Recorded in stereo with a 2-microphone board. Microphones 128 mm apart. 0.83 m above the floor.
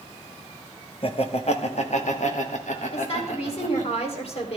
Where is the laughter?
45° left (ahead or behind), 1.2 m; by 3.9 s 75° left (ahead or behind), 3 m.